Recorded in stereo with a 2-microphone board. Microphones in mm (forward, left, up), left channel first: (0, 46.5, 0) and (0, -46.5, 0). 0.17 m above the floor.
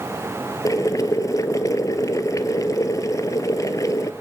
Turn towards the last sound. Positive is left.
turn(degrees=40)  # may be behind; listen again after turning